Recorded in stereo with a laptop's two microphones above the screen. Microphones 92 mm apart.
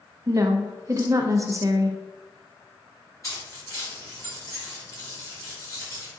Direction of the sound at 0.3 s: 35° right (ahead or behind).